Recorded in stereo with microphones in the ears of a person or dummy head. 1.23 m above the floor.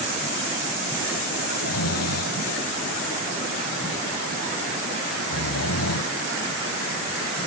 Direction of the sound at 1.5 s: 80° left.